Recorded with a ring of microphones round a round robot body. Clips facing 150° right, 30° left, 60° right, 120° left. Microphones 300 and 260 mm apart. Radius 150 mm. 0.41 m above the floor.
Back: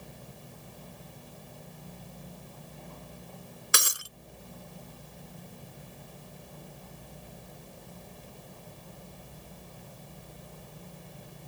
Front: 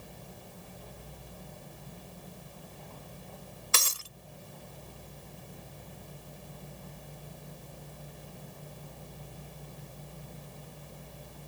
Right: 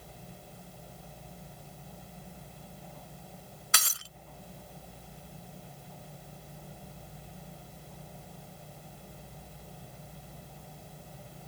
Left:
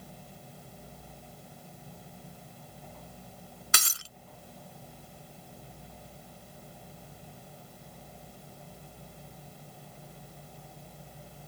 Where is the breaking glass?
135° left.